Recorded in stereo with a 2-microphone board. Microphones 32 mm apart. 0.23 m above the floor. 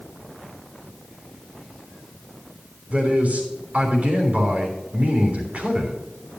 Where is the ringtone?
No ringtone in this recording.